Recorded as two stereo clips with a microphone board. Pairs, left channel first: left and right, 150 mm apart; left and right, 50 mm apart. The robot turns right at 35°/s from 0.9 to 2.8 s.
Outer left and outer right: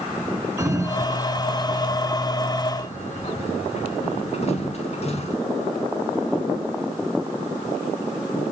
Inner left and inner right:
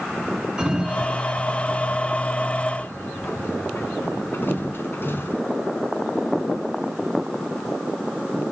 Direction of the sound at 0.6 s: 20° right (ahead or behind).